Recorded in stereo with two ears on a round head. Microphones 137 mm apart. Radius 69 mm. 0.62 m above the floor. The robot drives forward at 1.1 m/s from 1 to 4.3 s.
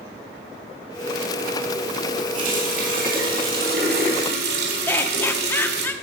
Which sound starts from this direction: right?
A running tap, at 2.3 s.